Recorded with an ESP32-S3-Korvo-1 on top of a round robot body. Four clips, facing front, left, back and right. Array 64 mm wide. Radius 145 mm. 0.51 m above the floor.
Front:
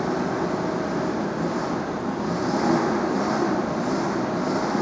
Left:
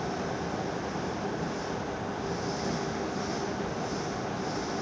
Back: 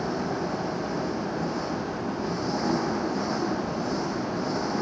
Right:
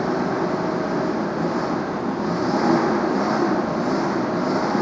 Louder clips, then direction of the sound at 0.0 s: Right 11 dB, front 4 dB; 75° right.